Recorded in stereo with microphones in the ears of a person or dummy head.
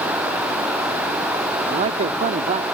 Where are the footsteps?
I don't hear footsteps.